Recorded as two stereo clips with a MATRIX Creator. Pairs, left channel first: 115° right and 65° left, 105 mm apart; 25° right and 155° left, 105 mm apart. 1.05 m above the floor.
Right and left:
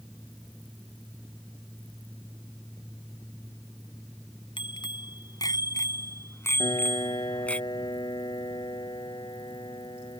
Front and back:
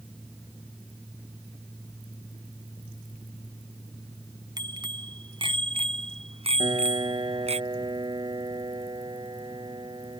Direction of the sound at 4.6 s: 155° right.